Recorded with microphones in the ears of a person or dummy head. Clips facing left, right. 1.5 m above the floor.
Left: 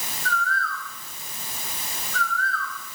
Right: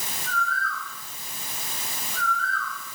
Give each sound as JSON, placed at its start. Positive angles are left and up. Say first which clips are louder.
{"t": 0.2, "sound": "a bird", "louder": "left 2 dB", "side_deg": -15, "distance_m": 3.5}